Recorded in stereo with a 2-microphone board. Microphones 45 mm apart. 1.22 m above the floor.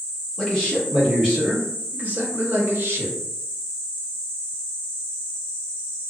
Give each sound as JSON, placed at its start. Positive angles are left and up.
{"t": 0.4, "sound": "a man speaking", "side_deg": 5, "distance_m": 1.4}